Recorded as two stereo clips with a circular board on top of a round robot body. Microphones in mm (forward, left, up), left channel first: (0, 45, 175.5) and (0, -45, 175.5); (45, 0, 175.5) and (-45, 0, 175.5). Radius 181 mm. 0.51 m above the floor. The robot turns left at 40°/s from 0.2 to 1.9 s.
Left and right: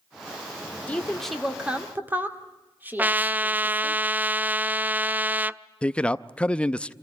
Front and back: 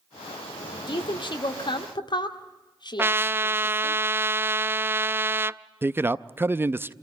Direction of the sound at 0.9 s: 15° left.